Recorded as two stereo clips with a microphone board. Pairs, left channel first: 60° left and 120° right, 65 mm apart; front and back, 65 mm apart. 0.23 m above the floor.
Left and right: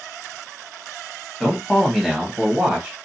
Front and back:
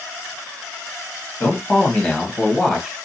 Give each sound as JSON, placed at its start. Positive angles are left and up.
{"t": 1.4, "sound": "a man speaking", "azimuth_deg": -25, "distance_m": 1.1}